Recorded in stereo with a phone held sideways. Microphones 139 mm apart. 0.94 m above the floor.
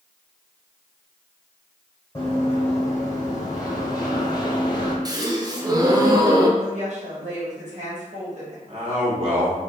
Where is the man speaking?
45° right (ahead or behind), 1.6 m.